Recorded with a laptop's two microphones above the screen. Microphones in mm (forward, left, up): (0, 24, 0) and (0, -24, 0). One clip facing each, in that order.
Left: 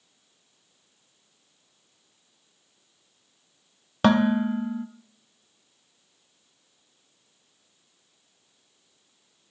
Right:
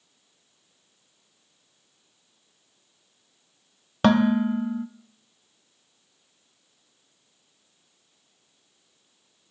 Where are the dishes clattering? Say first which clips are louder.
Right 1 dB; centre (ahead or behind), 0.6 m.